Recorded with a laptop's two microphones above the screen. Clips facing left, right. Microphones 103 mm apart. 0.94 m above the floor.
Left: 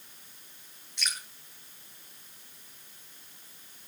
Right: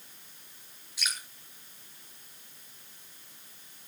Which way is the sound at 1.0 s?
5° right (ahead or behind).